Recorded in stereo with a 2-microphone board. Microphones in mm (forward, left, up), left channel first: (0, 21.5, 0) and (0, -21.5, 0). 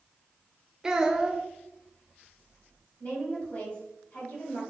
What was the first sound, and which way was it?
A child speaking, 15° right (ahead or behind).